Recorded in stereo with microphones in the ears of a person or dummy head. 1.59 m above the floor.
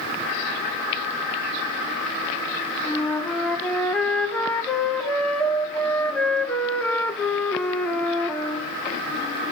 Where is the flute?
5° left (ahead or behind), 1.8 m.